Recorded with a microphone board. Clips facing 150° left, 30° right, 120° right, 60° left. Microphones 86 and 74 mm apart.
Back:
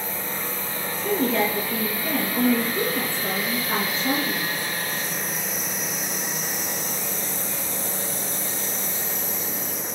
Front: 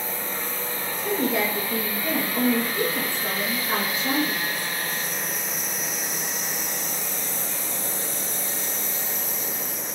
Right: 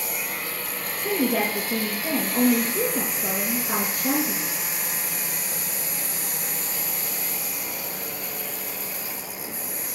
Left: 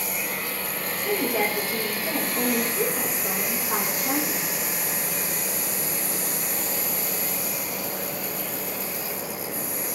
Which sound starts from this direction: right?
A woman speaking, at 1.0 s.